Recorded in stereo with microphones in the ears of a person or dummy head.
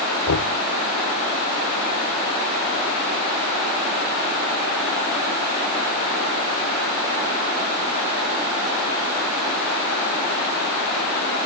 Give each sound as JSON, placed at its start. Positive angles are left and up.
{"t": 0.3, "sound": "knocking", "side_deg": 80}